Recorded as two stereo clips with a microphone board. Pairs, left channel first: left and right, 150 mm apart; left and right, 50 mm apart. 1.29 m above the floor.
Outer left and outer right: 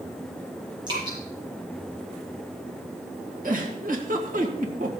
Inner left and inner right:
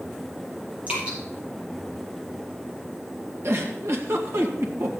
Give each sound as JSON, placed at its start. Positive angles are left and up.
{"t": 0.9, "sound": "dripping", "side_deg": -30, "distance_m": 7.5}
{"t": 3.4, "sound": "a giggle", "side_deg": -65, "distance_m": 1.7}